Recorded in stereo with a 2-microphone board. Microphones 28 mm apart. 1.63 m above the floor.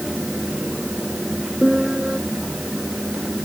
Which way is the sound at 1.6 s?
35° right (ahead or behind).